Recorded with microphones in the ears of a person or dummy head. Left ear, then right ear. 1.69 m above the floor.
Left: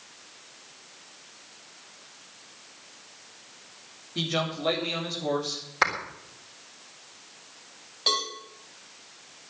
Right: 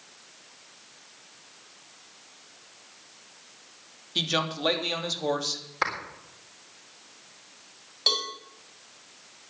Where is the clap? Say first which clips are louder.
Left 4 dB; 10° left (ahead or behind), 3.5 m.